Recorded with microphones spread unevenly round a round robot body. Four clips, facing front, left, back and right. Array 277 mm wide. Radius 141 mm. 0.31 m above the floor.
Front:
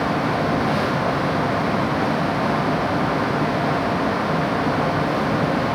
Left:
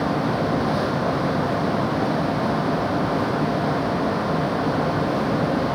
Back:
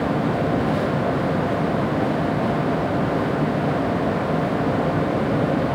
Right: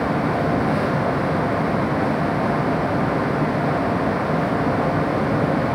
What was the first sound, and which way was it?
Only background noise.